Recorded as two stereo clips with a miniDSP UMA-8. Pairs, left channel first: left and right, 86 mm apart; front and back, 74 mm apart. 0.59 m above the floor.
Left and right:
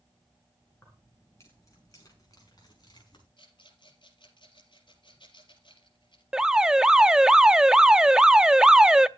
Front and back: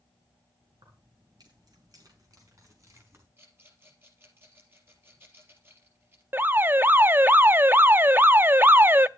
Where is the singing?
No singing in this recording.